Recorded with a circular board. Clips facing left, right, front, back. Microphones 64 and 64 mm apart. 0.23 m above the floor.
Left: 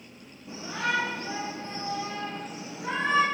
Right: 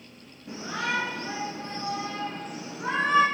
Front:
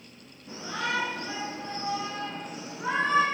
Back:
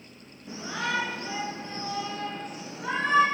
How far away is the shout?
About 2.5 m.